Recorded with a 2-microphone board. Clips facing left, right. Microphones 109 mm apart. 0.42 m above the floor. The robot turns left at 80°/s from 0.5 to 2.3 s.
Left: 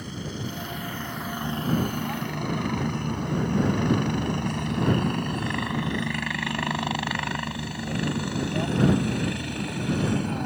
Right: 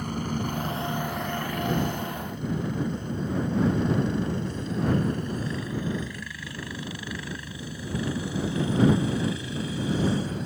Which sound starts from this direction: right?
A helicopter, at 0.0 s.